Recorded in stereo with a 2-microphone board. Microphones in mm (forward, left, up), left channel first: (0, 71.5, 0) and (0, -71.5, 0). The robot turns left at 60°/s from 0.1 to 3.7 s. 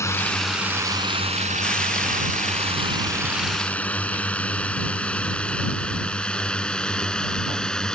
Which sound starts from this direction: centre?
A drone, at 0.0 s.